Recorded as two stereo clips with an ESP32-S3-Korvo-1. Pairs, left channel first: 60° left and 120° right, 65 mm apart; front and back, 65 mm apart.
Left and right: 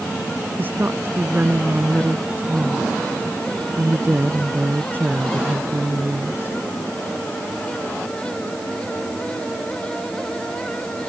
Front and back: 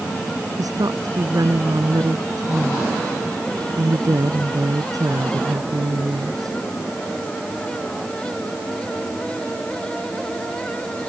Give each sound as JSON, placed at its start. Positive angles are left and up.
{"t": 0.6, "sound": "a woman speaking", "azimuth_deg": -175}